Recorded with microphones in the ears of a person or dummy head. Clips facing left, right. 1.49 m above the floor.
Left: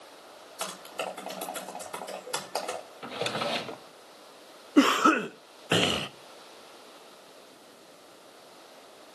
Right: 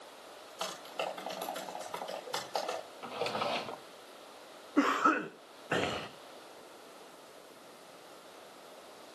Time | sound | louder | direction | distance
0.6 | typing on a keyboard | left 2 dB | 35° left (ahead or behind) | 6.5 m
3.0 | a drawer | left 3 dB | 20° left (ahead or behind) | 1.1 m
4.8 | a cough | left 8 dB | 55° left (ahead or behind) | 0.9 m